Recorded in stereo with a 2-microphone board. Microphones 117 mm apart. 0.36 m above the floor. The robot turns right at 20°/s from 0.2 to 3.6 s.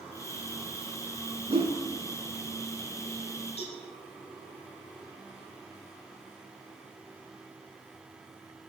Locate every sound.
1.5 s a whoosh: 60° right (ahead or behind), 1.3 m; by 1.8 s 65° right (ahead or behind), 1.3 m
3.6 s a cowbell: 60° left (ahead or behind), 2.5 m